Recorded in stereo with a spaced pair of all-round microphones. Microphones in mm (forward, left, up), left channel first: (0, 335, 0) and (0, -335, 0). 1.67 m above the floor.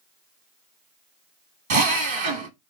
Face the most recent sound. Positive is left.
turn(degrees=-45)  # may be behind; listen again after turning